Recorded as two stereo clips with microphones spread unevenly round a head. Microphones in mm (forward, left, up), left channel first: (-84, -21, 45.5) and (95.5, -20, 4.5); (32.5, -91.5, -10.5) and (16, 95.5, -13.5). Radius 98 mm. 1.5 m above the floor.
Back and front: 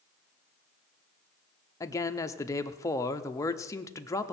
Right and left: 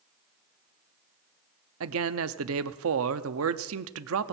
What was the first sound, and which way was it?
A man speaking, 100° left.